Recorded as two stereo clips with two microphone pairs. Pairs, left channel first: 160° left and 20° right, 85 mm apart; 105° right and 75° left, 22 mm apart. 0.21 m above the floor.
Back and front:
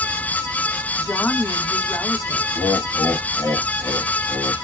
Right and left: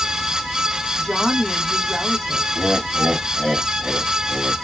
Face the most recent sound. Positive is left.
turn(degrees=120)